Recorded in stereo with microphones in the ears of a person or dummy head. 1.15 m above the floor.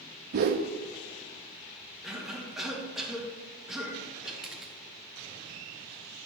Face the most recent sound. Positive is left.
turn(degrees=-5)  # may be behind; listen again after turning